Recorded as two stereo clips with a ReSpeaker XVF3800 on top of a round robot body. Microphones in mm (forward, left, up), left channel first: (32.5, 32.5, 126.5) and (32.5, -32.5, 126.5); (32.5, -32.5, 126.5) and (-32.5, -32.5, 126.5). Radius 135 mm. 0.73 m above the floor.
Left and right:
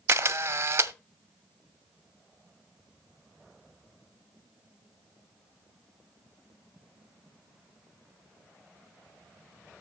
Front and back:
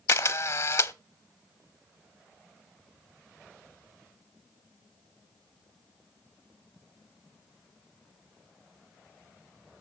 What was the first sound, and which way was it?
A camera shutter, 40° right.